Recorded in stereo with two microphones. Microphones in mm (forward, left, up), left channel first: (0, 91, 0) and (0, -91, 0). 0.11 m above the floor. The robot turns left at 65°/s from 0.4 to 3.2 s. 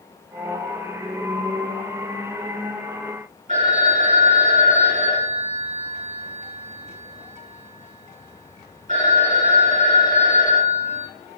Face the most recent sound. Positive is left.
turn(degrees=-40)  # may be behind; listen again after turning